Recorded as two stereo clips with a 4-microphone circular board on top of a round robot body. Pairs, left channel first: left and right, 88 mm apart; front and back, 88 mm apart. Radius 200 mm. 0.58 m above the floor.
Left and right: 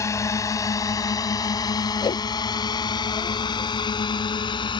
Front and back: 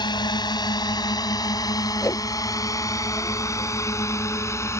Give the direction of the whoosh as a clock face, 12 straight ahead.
10 o'clock.